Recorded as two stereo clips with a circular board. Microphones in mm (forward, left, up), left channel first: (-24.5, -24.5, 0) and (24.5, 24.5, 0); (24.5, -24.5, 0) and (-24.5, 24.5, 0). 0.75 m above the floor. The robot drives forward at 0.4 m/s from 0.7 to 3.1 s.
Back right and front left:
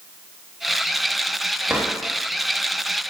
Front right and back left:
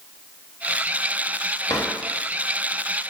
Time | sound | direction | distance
1.7 | a drawer | 35° right | 0.8 m